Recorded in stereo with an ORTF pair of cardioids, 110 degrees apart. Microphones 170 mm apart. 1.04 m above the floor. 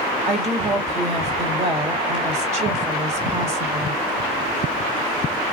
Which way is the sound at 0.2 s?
40° right.